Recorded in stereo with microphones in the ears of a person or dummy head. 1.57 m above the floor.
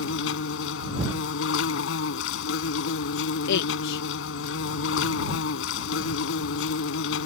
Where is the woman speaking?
70° left (ahead or behind).